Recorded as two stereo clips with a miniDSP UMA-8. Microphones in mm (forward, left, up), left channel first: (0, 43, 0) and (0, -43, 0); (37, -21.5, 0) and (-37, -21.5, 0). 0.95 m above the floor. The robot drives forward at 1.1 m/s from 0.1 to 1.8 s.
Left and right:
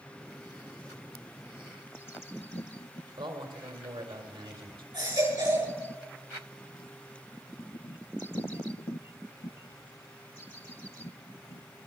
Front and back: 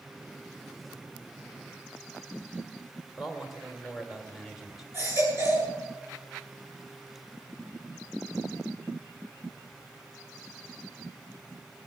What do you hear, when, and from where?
3.2 s a man speaking: 95° right, 2.5 m
4.9 s a baby crying: 120° right, 8.5 m